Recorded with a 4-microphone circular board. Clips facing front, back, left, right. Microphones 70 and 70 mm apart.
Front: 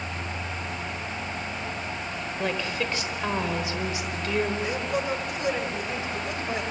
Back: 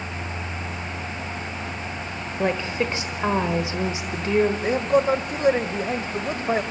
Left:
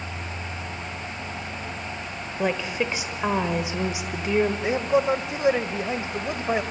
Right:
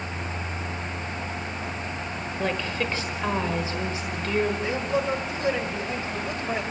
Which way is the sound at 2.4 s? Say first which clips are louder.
Back 5 dB, left 3 dB; 150° left.